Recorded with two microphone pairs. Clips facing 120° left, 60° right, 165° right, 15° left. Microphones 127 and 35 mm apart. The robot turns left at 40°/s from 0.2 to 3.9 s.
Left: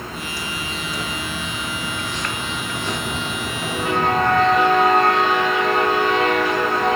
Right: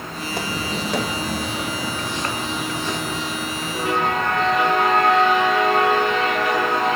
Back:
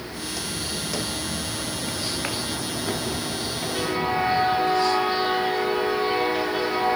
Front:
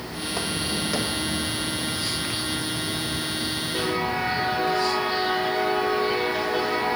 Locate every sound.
0.2 s footsteps: 35° right, 3.5 m; by 4.6 s 170° left, 6.5 m